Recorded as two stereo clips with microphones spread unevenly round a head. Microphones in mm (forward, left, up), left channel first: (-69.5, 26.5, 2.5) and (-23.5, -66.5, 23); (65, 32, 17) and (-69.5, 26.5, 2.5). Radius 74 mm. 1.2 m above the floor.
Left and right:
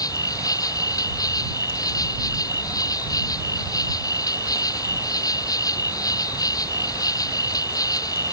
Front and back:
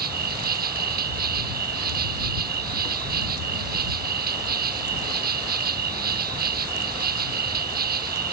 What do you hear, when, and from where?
0.0 s an insect: 170° left